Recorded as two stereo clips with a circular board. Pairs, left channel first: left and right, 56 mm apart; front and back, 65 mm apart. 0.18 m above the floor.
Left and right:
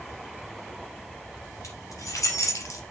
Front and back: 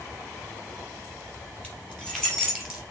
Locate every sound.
1.6 s keys jangling: 75° left, 3.5 m; by 2.8 s 100° left, 2.5 m